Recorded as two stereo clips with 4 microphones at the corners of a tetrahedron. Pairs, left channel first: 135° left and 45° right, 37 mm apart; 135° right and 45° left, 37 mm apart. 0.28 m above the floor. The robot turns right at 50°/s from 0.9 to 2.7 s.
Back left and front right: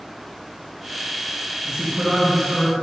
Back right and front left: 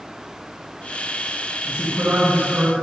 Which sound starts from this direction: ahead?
A man speaking, at 1.7 s.